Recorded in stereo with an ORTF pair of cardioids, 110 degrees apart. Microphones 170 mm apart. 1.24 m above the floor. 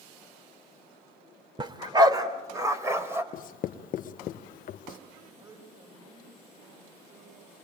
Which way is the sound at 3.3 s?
55° left.